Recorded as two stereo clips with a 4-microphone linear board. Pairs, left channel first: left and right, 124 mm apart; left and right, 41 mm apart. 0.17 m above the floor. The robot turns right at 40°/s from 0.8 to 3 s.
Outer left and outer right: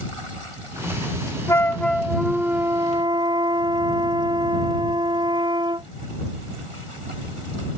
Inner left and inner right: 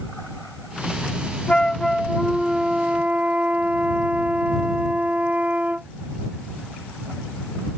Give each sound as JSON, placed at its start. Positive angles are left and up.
{"t": 1.5, "sound": "a flute", "azimuth_deg": 155}